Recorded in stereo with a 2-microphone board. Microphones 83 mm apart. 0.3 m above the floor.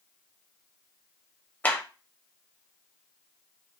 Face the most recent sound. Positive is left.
turn(degrees=20)  # may be behind; listen again after turning